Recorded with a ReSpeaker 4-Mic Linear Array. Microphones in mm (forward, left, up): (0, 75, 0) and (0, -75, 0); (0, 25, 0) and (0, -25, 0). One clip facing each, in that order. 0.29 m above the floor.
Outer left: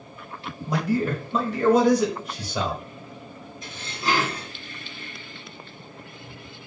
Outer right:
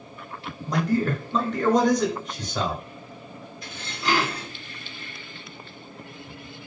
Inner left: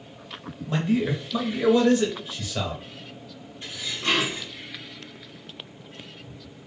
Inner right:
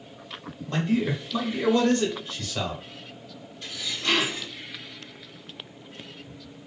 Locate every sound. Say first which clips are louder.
0.7 s a man speaking: outer right 1 dB, inner left 1 dB; 10° left (ahead or behind), 1.0 m
3.6 s dishes clattering: outer left 1 dB, inner left 1 dB; 25° left (ahead or behind), 1.8 m